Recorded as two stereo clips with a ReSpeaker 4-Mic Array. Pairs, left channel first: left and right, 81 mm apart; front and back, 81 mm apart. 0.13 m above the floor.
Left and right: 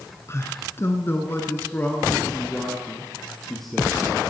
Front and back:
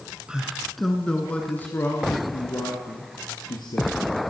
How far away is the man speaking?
About 1.4 m.